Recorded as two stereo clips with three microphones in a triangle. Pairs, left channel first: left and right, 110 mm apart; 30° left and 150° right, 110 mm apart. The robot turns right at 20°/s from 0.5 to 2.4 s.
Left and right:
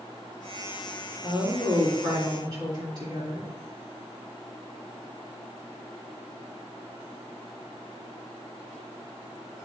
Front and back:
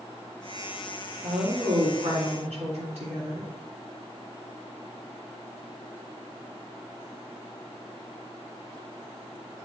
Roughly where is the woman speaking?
Behind.